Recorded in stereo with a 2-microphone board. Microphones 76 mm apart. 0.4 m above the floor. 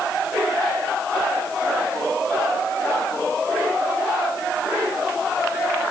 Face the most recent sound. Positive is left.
No sound to turn to.